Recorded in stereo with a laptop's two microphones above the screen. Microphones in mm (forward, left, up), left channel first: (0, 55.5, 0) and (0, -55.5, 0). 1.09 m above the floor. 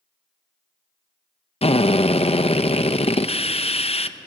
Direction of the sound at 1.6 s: 70° left (ahead or behind).